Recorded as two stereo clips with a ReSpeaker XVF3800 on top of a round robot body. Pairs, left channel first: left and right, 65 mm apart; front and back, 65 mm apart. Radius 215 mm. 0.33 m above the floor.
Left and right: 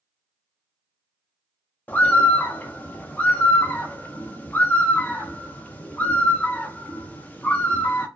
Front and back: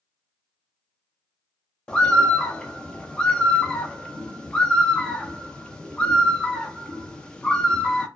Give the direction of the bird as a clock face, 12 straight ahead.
10 o'clock.